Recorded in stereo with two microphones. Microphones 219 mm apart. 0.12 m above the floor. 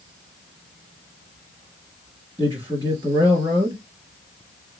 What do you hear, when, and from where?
2.4 s a man speaking: 15° right (ahead or behind), 1.9 m